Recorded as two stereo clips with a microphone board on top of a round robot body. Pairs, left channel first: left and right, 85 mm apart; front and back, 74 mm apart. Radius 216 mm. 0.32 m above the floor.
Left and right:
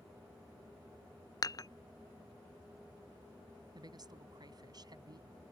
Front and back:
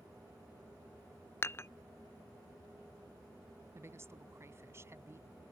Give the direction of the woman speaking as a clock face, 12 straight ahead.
4 o'clock.